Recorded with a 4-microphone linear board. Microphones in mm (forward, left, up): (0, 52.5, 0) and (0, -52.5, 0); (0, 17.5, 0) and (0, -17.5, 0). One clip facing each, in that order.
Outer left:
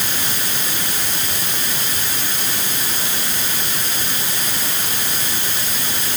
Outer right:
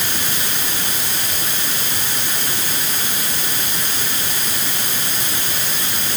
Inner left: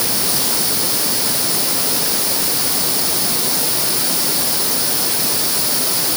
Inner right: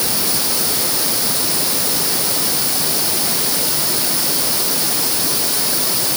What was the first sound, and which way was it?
Only background noise.